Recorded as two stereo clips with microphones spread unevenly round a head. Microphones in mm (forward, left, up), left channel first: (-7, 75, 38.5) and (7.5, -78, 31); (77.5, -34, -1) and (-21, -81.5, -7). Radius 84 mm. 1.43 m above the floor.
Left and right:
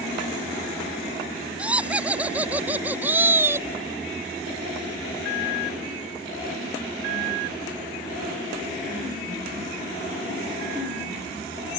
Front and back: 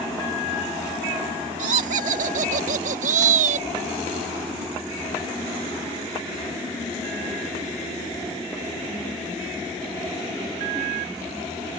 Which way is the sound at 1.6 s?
165° right.